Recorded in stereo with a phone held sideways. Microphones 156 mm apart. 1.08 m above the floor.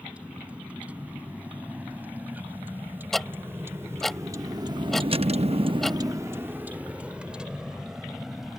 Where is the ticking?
Centre (ahead or behind).